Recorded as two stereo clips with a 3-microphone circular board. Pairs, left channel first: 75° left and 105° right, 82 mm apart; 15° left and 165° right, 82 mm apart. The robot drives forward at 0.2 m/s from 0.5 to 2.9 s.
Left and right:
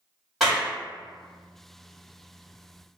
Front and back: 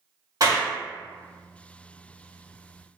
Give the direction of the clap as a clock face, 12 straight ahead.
6 o'clock.